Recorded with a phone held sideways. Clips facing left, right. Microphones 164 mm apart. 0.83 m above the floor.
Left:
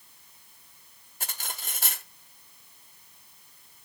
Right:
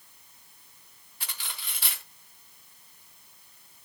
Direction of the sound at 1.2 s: 45° left (ahead or behind).